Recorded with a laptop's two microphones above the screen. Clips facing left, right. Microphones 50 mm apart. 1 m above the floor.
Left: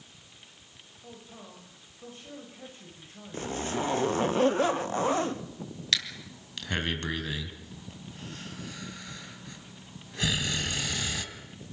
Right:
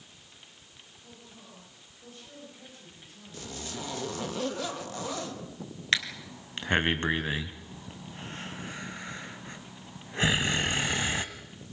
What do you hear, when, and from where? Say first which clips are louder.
1.0 s a man speaking: left 5 dB; 40° left (ahead or behind), 4.5 m
3.3 s a zipper: left 8 dB; 30° left (ahead or behind), 1.1 m
5.9 s breathing: right 4 dB; 30° right (ahead or behind), 2.0 m